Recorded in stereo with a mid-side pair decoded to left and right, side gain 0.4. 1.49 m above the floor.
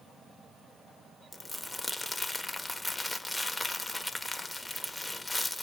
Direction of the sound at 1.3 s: 10° left.